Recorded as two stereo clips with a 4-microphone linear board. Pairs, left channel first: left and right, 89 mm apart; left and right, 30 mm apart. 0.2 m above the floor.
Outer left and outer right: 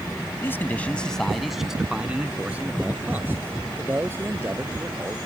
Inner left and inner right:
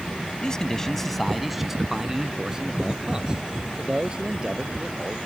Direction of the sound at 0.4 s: 25° left (ahead or behind).